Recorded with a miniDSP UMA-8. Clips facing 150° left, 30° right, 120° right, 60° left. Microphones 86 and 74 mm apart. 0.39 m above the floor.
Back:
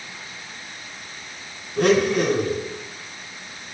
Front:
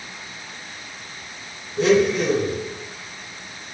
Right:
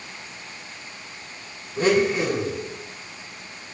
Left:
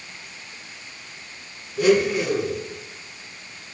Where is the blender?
175° right, 0.9 m.